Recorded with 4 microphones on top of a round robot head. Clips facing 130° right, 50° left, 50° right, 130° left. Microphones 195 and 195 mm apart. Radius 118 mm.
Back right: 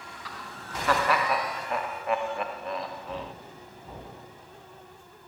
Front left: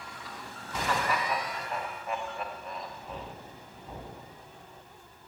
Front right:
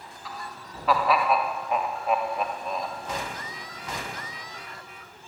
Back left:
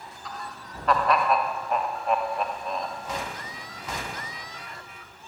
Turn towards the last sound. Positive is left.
turn(degrees=-140)